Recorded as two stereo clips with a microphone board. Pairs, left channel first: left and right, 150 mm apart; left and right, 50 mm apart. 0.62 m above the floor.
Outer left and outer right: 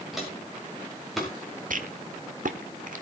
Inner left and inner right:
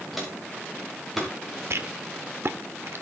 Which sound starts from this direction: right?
A rattle, at 1.7 s.